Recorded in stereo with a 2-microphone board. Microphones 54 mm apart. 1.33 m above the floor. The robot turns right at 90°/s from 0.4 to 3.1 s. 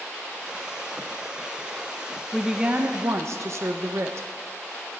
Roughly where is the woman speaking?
Behind.